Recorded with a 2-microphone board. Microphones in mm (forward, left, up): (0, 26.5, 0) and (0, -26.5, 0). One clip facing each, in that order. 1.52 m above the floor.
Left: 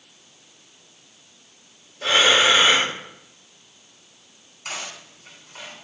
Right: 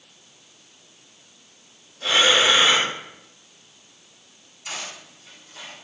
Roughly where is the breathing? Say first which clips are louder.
Left 1 dB; left.